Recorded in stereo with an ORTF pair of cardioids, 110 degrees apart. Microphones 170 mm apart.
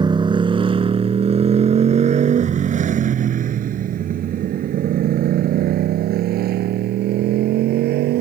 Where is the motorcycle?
25° right; by 8.2 s 75° right.